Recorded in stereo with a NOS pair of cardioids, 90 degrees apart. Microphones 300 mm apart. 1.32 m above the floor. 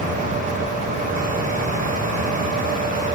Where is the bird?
I don't hear a bird.